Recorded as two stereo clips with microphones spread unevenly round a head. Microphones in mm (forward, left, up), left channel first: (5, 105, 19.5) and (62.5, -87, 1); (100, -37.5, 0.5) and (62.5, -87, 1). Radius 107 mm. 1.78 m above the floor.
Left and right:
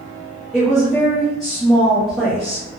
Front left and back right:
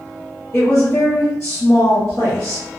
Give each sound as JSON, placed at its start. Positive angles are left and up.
{"t": 0.5, "sound": "a woman speaking", "azimuth_deg": 20, "distance_m": 1.1}